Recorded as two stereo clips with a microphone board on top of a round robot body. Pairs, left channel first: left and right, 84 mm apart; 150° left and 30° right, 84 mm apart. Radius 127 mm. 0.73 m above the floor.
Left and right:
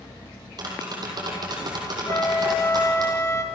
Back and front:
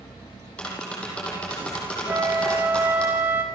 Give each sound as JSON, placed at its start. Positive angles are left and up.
{"t": 0.6, "sound": "tapping", "azimuth_deg": -130, "distance_m": 5.5}
{"t": 2.1, "sound": "a flute", "azimuth_deg": 35, "distance_m": 2.0}